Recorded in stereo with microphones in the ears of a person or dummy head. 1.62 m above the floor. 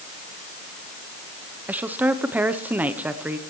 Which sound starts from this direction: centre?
A woman speaking, at 1.7 s.